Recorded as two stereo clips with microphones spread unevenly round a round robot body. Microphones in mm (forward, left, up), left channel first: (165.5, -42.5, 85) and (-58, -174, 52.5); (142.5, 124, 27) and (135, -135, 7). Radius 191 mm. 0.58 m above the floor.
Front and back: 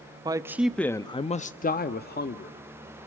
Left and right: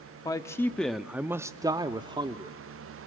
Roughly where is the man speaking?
Behind.